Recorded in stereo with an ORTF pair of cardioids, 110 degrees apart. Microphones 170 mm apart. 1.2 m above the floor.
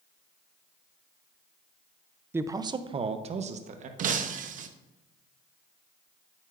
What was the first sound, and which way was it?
A man speaking, 15° right.